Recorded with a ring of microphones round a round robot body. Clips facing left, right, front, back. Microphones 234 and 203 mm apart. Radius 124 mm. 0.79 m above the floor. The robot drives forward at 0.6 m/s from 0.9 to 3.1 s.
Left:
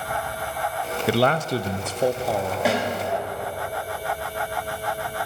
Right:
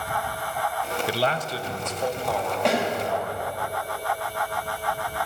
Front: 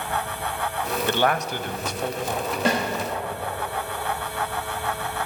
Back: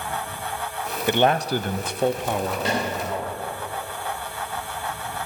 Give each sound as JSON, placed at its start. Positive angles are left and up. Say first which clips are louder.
{"t": 1.1, "sound": "a man speaking", "louder": "left 8 dB, back 5 dB", "azimuth_deg": 100, "distance_m": 0.5}
{"t": 2.6, "sound": "a snare drum", "louder": "even, front 5 dB", "azimuth_deg": 5, "distance_m": 4.0}